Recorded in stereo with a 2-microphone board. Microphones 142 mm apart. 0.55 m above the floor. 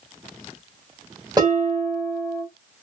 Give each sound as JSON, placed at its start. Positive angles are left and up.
{"t": 1.4, "sound": "dishes clattering", "side_deg": -30, "distance_m": 2.0}